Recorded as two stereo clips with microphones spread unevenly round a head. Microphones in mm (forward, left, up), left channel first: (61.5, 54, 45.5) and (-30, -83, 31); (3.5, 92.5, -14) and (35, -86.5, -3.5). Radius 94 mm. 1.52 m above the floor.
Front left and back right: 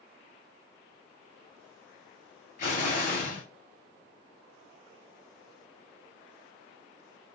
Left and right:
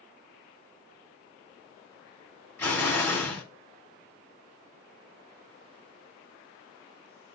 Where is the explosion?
20° left, 3.5 m.